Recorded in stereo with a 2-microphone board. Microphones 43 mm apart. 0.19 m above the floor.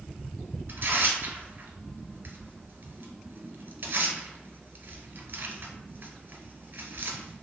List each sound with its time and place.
0.7 s tearing paper: 50° right (ahead or behind), 0.9 m